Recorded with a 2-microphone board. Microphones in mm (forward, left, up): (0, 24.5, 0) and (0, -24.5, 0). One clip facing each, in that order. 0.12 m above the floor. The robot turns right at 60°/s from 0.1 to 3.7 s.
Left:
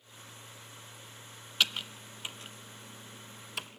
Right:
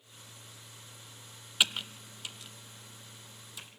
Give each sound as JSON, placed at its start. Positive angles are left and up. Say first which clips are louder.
{"t": 1.6, "sound": "typing on a keyboard", "louder": "right 1 dB", "side_deg": -10, "distance_m": 0.6}